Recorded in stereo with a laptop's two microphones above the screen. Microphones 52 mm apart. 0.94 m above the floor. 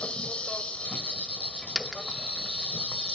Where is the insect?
25° left (ahead or behind), 1.6 m.